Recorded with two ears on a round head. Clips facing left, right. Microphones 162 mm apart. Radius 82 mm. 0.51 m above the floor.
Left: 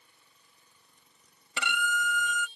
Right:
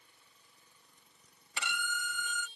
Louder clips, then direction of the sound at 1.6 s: Left 8 dB; 60° left (ahead or behind).